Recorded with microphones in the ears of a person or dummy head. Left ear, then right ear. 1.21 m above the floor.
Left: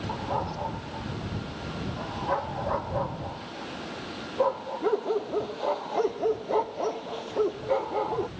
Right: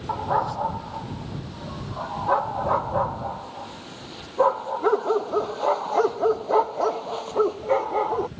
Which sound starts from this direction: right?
A dog barking, at 0.1 s.